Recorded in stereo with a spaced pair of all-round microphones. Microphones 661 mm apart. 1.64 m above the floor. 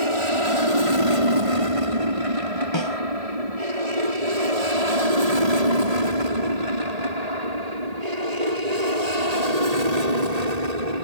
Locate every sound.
0.0 s an aircraft: 50° right (ahead or behind); by 11.0 s 75° right (ahead or behind)
2.7 s a snare drum: 40° left (ahead or behind)